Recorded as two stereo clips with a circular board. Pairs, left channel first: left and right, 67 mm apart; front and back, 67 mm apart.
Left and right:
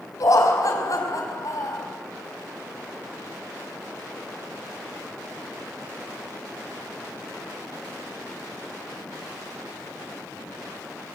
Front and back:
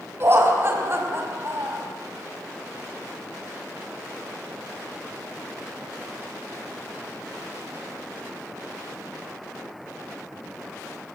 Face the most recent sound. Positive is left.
turn(degrees=130)